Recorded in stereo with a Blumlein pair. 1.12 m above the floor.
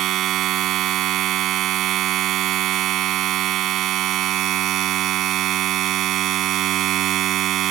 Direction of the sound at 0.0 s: 35° right.